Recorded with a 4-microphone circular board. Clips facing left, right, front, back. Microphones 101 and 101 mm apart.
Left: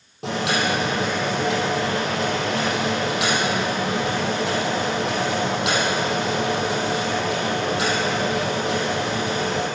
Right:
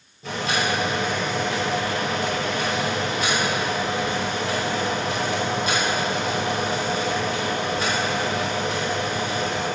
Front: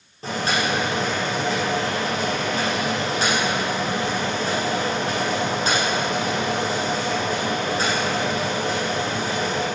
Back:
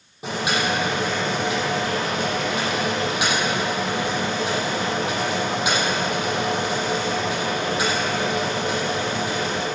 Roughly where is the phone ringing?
I don't hear a phone ringing.